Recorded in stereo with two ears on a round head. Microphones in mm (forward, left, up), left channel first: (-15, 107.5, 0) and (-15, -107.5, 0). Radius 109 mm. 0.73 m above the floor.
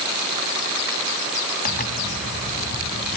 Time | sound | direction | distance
1.6 | a zipper | 40° left (ahead or behind) | 1.4 m